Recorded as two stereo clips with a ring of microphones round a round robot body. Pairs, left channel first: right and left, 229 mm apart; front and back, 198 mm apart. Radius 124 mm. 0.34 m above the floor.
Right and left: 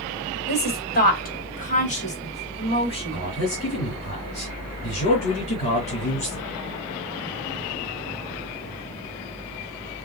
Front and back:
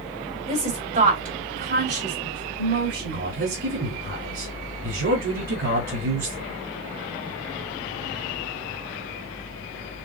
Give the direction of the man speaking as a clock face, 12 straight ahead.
5 o'clock.